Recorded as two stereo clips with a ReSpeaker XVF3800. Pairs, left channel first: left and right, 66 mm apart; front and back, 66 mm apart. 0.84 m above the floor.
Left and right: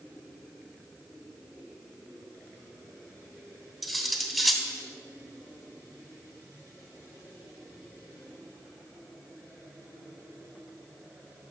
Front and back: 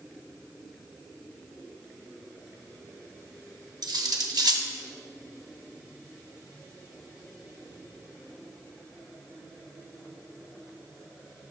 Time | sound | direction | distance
3.8 | cutlery clinking | 175° right | 0.8 m